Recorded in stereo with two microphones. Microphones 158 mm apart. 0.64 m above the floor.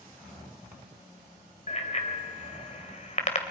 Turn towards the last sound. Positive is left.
turn(degrees=45)  # may be behind; listen again after turning